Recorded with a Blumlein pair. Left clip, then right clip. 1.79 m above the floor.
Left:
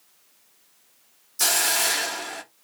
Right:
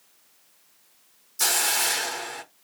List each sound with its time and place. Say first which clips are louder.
1.4 s a hiss: left 2 dB; 5° left, 0.6 m